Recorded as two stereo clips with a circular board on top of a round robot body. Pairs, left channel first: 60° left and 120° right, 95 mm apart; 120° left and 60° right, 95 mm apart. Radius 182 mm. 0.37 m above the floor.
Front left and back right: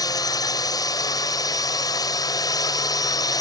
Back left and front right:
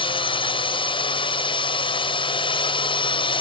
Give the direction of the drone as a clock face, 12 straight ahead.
9 o'clock.